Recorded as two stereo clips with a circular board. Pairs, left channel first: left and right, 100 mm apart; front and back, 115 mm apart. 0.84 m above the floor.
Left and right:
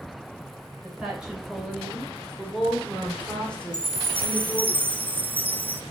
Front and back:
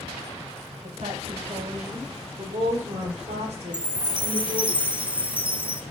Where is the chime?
120° right, 0.6 m.